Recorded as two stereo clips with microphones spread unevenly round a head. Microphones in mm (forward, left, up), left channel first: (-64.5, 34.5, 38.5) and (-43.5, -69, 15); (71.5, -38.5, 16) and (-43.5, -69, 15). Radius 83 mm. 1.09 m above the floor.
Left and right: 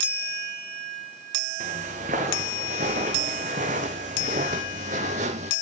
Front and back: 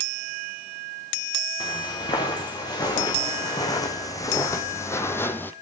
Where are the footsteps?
35° right, 4 m; by 5.5 s 55° right, 1.5 m.